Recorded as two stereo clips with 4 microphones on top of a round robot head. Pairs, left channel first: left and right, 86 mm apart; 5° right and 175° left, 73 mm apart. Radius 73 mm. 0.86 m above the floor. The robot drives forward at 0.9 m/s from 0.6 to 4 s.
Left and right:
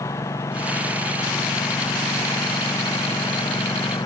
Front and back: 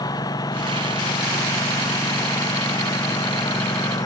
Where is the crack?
No crack in this recording.